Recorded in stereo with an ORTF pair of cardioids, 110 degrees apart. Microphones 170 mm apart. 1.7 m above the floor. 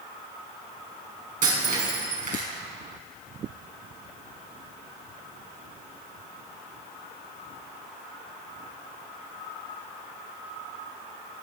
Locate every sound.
1.4 s breaking glass: 50° right, 6 m